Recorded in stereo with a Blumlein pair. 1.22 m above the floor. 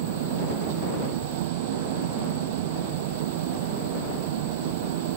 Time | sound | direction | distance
0.0 | an engine running | 50° right | ?